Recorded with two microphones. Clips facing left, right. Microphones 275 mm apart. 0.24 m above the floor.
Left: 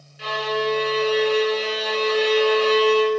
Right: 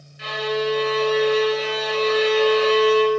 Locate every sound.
0.2 s a violin: 35° left (ahead or behind), 3 m